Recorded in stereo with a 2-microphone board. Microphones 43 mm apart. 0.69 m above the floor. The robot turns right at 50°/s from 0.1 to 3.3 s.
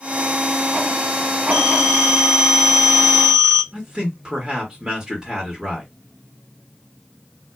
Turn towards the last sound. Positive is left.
turn(degrees=-15)  # may be behind; listen again after turning